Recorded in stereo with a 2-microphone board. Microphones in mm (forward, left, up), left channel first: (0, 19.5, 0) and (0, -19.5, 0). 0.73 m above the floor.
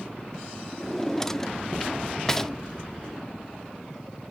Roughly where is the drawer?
Centre.